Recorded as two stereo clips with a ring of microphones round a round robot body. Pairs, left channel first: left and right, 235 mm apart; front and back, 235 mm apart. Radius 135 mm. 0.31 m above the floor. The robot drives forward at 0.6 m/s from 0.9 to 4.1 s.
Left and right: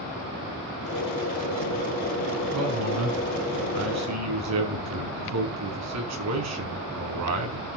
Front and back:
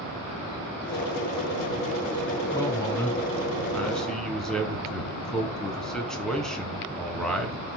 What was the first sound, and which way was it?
A man speaking, 75° right.